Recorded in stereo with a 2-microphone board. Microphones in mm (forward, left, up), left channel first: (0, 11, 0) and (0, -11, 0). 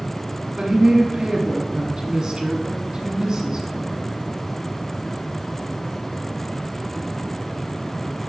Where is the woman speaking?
35° right (ahead or behind), 1.2 m.